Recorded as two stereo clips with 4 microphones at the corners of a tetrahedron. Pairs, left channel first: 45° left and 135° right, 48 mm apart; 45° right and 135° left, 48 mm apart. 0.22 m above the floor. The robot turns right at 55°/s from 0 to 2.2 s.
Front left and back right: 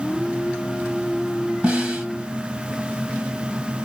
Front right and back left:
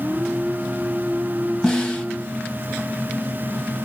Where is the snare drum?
110° right, 1.5 m; by 2.0 s 90° right, 1.5 m.